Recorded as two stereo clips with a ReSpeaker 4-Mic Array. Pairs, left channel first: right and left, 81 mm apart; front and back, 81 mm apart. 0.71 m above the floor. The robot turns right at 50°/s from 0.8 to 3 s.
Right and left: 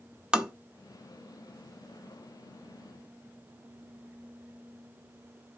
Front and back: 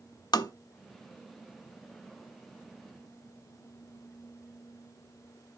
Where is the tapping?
15° left, 0.7 m.